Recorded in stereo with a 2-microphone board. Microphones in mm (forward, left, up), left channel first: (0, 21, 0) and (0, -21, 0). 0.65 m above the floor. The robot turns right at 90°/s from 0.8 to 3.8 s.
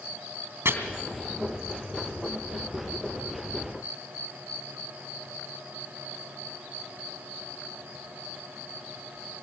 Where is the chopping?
70° right (ahead or behind), 3 m.